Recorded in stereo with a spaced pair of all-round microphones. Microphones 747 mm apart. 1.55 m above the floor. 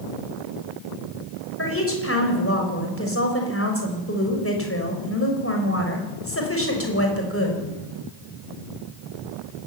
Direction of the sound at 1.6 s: 15° left (ahead or behind).